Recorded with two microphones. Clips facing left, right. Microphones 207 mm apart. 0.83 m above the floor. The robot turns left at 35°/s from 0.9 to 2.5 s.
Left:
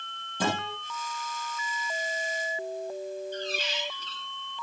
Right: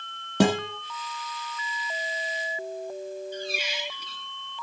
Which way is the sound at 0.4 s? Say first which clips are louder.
Right 8 dB; 80° right.